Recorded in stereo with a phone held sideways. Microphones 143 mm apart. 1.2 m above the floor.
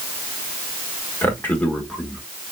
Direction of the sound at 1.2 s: 15° left (ahead or behind).